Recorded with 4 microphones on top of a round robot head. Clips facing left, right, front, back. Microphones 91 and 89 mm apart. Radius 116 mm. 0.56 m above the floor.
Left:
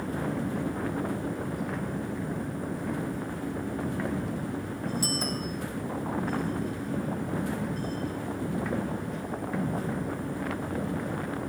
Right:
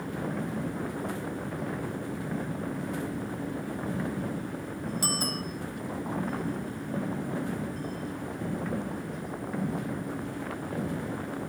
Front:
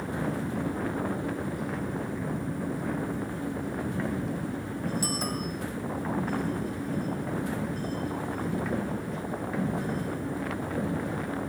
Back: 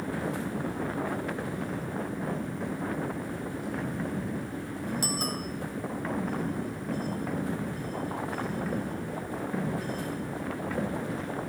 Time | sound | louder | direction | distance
5.0 | a bicycle bell | left 1 dB, front 1 dB | 135° right | 4.5 m